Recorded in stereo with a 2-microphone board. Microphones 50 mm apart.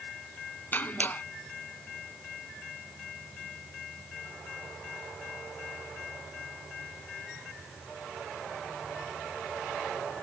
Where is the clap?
35° left (ahead or behind).